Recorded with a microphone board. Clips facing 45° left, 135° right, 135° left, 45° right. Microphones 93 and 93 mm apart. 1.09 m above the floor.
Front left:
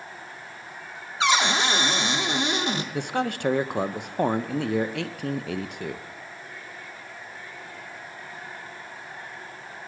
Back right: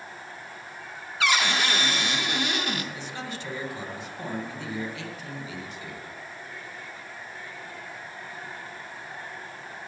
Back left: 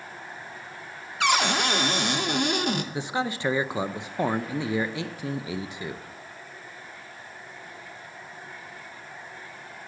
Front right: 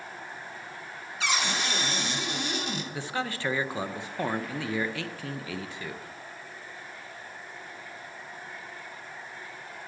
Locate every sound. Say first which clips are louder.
1.2 s a cupboard door: front left 3 dB, back left 7 dB; 110° left, 0.8 m
2.9 s a man speaking: front left 9 dB, back left 4 dB; 65° left, 0.6 m